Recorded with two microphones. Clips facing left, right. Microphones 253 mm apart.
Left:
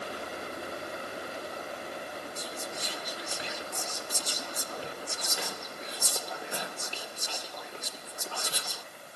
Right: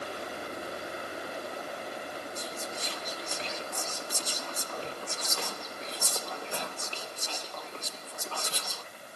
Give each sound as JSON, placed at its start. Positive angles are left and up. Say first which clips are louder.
{"t": 2.4, "sound": "whispering", "louder": "even", "side_deg": 10, "distance_m": 1.9}